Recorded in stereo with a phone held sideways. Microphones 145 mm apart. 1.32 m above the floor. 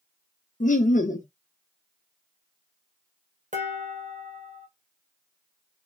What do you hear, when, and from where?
0.6 s laughter: 60° left (ahead or behind), 0.6 m
3.5 s dishes clattering: 60° right (ahead or behind), 1.1 m